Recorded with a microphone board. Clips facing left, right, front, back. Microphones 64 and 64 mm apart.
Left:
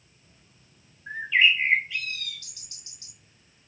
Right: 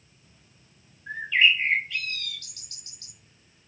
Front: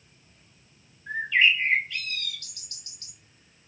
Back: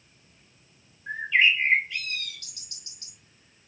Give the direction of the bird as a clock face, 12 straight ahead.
7 o'clock.